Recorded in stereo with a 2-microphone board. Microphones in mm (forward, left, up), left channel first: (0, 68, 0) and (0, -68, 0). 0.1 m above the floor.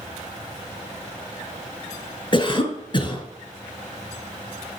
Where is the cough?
35° left (ahead or behind), 1.4 m.